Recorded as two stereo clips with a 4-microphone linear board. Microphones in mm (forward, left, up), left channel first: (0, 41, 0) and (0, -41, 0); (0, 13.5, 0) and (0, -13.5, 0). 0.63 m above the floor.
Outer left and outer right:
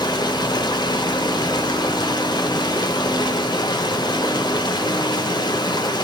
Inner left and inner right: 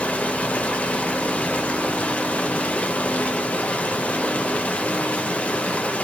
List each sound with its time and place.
0.0 s running water: 55° left (ahead or behind), 0.7 m